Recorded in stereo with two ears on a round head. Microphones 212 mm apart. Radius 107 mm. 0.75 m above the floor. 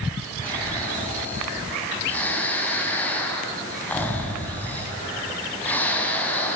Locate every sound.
0.4 s snoring: 5° left (ahead or behind), 3.5 m